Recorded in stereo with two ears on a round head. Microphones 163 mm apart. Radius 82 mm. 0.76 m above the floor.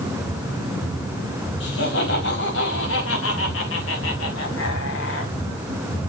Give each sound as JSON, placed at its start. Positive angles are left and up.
{"t": 1.6, "sound": "laughter", "side_deg": 70, "distance_m": 4.5}